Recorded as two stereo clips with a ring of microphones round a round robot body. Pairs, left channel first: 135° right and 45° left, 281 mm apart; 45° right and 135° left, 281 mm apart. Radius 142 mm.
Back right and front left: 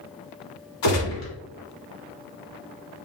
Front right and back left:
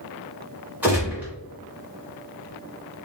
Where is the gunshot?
140° right, 2.5 m.